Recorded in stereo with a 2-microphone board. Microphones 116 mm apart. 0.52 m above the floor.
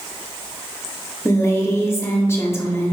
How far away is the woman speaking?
About 0.8 m.